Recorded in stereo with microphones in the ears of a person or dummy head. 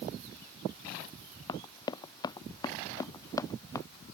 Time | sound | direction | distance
1.5 | running footsteps | 20° left (ahead or behind) | ?